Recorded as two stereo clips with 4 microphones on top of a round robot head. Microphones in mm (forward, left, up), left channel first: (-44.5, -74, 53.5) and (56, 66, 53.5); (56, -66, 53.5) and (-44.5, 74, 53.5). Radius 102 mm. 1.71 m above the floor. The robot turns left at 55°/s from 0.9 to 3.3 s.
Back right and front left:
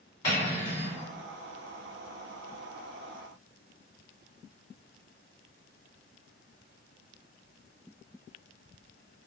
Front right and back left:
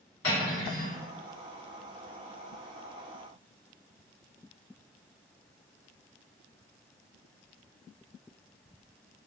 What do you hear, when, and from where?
0.2 s cutlery clinking: 75° right, 1.8 m; by 1.0 s 80° right, 1.8 m